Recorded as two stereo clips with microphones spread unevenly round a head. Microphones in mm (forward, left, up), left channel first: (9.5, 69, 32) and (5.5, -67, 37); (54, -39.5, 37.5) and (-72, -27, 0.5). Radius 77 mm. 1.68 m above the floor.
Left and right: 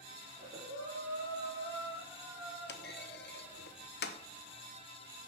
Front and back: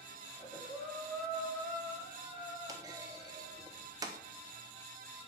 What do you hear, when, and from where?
0.3 s breathing: 160° right, 6.5 m
2.7 s a clunk: 100° left, 0.7 m